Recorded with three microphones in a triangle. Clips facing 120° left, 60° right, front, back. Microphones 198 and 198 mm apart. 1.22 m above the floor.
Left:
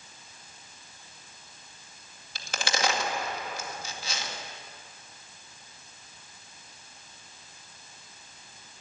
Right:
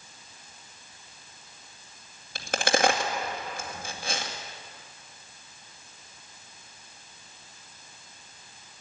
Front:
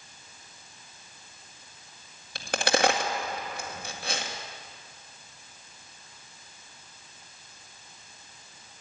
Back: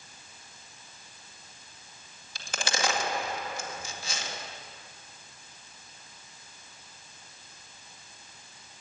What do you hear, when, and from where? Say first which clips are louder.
2.4 s a crack: right 7 dB, front 8 dB; 25° right, 2 m